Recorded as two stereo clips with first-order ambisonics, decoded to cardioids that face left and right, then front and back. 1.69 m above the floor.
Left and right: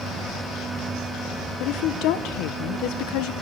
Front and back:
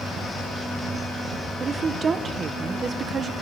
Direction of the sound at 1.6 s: 110° left.